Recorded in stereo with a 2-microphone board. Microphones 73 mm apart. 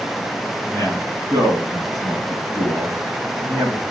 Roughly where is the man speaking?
Right.